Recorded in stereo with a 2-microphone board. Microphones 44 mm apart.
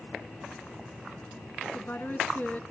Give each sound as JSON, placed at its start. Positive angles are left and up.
{"t": 1.6, "sound": "a woman speaking", "side_deg": 45, "distance_m": 1.7}